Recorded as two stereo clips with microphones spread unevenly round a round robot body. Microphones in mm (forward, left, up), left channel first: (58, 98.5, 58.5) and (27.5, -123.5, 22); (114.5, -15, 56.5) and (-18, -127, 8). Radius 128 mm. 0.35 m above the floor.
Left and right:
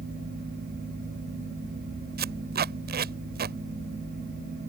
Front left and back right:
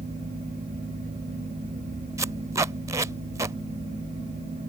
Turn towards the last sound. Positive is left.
turn(degrees=-85)